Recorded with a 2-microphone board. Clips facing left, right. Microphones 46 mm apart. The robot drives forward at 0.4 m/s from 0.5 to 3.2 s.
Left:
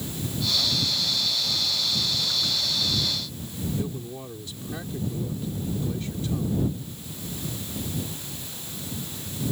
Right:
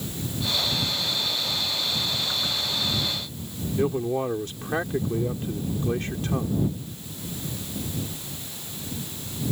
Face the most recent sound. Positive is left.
turn(degrees=-55)  # may be behind; listen again after turning